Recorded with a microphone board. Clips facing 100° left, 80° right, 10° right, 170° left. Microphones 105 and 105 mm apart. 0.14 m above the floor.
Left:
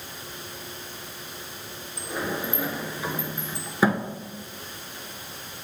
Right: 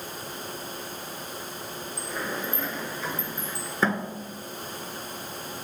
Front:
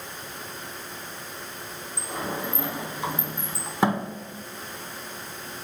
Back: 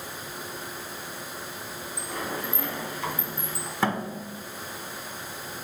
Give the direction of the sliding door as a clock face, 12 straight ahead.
11 o'clock.